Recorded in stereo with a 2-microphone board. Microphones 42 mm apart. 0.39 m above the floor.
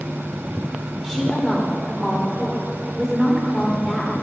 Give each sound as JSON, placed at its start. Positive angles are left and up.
{"t": 1.0, "sound": "a woman speaking", "side_deg": 0, "distance_m": 0.8}